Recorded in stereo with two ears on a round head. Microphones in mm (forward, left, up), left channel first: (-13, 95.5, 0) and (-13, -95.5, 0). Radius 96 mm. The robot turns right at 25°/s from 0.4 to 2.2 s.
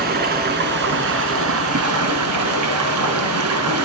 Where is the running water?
130° right, 2 m; by 3.9 s 85° right, 2 m.